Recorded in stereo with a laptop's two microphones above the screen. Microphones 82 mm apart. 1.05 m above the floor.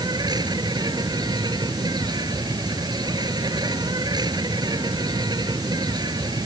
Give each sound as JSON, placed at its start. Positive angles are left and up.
{"t": 0.0, "sound": "an insect", "side_deg": -55}